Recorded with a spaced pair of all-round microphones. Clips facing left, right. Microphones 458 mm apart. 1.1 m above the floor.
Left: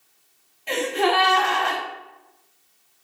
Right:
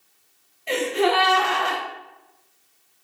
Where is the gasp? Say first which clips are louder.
Right 1 dB; 10° left (ahead or behind), 0.6 m.